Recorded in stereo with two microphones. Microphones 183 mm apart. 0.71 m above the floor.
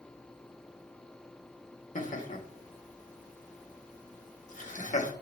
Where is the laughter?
45° left (ahead or behind), 1.5 m.